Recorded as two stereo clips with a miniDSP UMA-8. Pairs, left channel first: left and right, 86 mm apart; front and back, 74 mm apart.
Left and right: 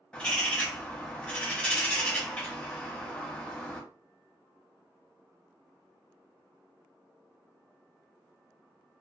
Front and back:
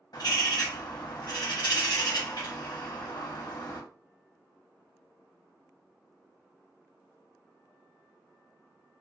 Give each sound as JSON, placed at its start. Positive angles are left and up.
{"t": 0.1, "sound": "a bird", "azimuth_deg": 15, "distance_m": 0.9}